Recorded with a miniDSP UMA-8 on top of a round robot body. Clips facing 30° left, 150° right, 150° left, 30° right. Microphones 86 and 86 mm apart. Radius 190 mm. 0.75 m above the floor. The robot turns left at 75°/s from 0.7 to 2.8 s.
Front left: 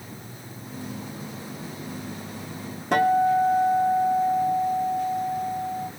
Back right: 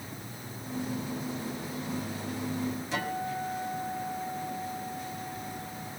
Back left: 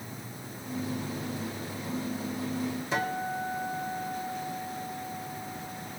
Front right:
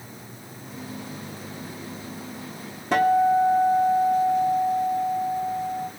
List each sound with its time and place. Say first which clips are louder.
2.9 s a guitar: front left 14 dB, front right 16 dB; straight ahead, 3 m